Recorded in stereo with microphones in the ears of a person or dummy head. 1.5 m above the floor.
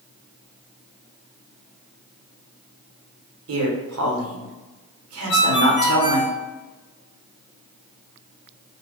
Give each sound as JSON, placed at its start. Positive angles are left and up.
{"t": 3.5, "sound": "a man speaking", "side_deg": -85, "distance_m": 1.1}
{"t": 5.3, "sound": "a ringtone", "side_deg": 45, "distance_m": 1.3}